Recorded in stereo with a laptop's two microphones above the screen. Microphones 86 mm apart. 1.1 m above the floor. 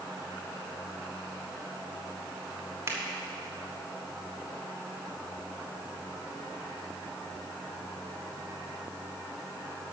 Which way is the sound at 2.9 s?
35° right (ahead or behind).